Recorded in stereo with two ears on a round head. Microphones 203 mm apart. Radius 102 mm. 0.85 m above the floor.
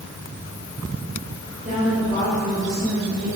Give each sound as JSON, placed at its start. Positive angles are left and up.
{"t": 1.6, "sound": "a woman speaking", "side_deg": -35, "distance_m": 4.0}